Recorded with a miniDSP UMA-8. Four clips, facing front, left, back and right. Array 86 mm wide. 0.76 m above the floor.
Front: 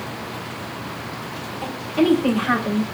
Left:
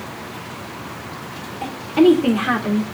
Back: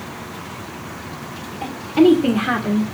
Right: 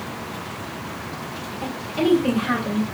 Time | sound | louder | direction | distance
1.6 | a woman speaking | left 9 dB, back 6 dB | 130° left | 3 m